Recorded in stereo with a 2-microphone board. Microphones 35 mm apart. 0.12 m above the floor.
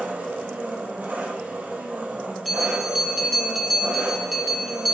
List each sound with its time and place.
0.0 s an engine running: 65° right (ahead or behind), 1.5 m
2.5 s a bell: 5° right (ahead or behind), 1.5 m